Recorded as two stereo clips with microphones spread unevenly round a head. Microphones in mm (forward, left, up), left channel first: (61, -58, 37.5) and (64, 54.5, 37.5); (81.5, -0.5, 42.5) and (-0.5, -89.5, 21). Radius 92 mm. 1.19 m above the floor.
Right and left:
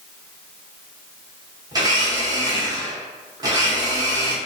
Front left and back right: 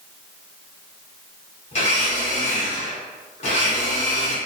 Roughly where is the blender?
Ahead left.